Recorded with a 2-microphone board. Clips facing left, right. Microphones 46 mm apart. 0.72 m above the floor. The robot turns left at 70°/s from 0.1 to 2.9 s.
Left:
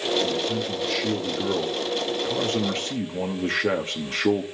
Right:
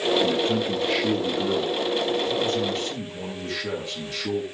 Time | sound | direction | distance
0.2 | a man speaking | 100° right | 1.0 m